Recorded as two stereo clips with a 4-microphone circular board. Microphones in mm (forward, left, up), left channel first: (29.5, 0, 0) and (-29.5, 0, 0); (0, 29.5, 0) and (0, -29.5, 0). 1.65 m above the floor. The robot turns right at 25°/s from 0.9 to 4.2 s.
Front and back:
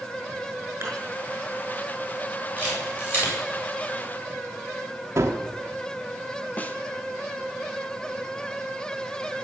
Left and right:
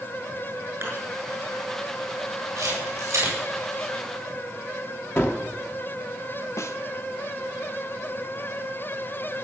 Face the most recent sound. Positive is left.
turn(degrees=60)